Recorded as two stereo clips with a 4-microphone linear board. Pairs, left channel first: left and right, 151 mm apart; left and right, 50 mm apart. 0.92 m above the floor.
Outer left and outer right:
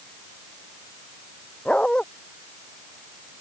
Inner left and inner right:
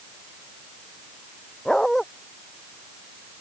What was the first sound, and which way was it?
A dog barking, 5° left (ahead or behind).